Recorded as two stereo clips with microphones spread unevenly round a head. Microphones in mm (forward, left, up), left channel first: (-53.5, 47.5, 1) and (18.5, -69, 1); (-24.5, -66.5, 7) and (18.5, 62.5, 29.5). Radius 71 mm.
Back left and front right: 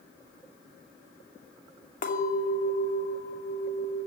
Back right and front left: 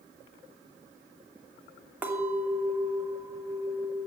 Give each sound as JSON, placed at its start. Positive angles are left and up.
{"t": 2.0, "sound": "a clink", "azimuth_deg": 145, "distance_m": 2.5}